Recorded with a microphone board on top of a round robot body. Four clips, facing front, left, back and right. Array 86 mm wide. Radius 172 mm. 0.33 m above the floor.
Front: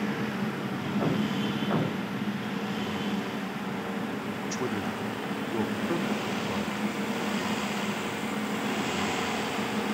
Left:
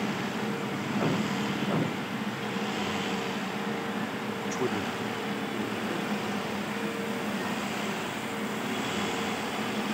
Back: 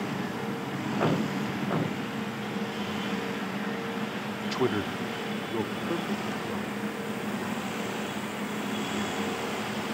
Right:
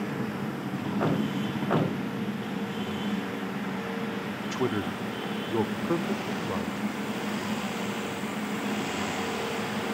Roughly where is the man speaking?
Behind.